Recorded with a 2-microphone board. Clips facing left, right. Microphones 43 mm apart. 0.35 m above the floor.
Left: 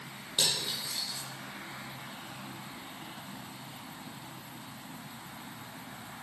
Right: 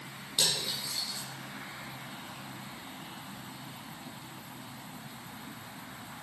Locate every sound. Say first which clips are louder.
0.4 s cutlery clinking: even; 30° left (ahead or behind), 8 m